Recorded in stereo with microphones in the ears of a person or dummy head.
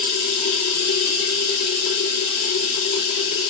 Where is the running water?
55° left (ahead or behind), 2.5 m.